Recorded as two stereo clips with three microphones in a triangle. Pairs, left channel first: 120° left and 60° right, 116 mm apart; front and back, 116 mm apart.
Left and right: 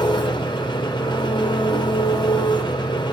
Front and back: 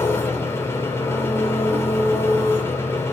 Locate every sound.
0.0 s an engine running: 70° left, 3 m